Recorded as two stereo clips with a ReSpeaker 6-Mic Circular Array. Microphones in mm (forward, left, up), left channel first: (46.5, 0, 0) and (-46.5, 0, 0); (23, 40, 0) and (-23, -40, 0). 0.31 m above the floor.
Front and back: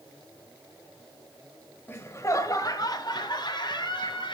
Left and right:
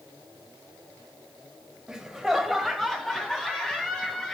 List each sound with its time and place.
1.9 s laughter: 45° right, 1.0 m; by 4.3 s 20° right, 2.5 m